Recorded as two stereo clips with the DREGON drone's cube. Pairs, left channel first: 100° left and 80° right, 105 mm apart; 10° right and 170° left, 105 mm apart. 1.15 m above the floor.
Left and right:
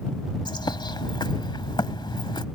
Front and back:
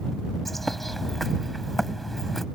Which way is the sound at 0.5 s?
75° left.